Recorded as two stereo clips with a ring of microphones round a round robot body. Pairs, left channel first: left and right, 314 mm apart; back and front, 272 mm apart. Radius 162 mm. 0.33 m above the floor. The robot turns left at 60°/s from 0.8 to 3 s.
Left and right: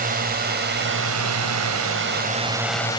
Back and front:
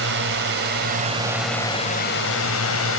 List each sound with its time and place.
0.0 s a drone: 35° right; by 3.0 s 160° left